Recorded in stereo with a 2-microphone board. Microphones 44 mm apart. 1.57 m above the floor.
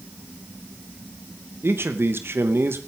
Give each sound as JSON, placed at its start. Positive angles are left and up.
{"t": 1.6, "sound": "a man speaking", "side_deg": -60, "distance_m": 2.5}